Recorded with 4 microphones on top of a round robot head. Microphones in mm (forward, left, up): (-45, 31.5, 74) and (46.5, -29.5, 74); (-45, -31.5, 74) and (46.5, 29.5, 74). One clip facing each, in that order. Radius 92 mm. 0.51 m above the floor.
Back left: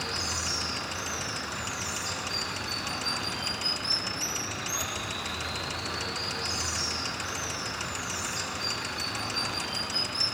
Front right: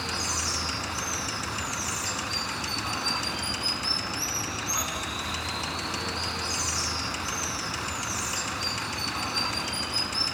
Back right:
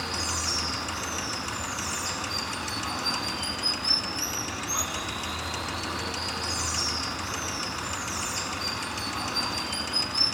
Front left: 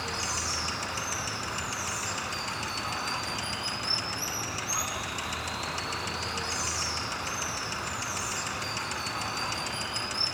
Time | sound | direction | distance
0.0 | running water | 80° right | 3 m